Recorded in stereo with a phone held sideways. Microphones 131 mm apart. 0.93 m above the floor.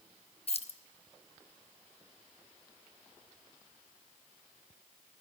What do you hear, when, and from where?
0.5 s keys jangling: 50° left (ahead or behind), 0.6 m